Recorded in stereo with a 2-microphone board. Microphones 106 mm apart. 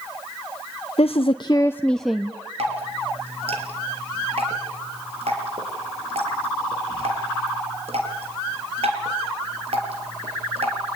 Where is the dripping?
75° right (ahead or behind), 5.5 m.